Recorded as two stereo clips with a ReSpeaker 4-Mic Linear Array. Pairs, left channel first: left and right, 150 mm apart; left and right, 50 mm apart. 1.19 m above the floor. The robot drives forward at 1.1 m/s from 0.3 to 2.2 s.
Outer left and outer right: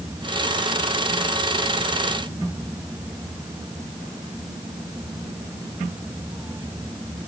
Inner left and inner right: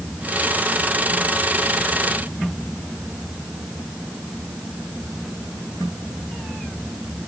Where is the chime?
I don't hear a chime.